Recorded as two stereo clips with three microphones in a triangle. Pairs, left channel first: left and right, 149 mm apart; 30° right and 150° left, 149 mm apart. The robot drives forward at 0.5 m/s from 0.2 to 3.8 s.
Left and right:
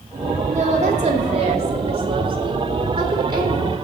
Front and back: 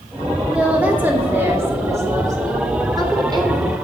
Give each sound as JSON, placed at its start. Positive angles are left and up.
{"t": 0.5, "sound": "a woman speaking", "azimuth_deg": -125, "distance_m": 2.0}